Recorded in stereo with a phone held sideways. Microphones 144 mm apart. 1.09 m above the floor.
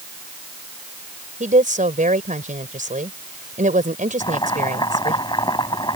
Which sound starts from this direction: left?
Boiling, at 4.2 s.